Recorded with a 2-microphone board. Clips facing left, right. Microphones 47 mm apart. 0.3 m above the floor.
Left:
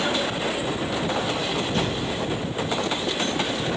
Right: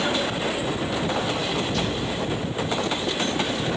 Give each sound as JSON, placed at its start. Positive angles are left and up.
{"t": 1.7, "sound": "a thud", "side_deg": 40, "distance_m": 4.5}